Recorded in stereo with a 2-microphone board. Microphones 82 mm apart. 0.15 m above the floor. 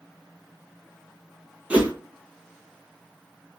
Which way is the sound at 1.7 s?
15° right (ahead or behind).